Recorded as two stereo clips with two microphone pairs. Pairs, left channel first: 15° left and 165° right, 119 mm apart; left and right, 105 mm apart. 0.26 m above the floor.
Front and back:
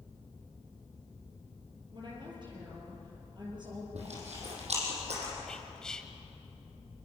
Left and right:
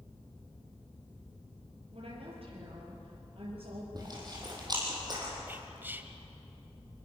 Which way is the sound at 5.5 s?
55° right.